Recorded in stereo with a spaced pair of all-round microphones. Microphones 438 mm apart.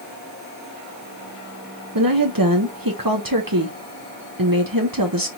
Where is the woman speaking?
50° right (ahead or behind), 1.2 m.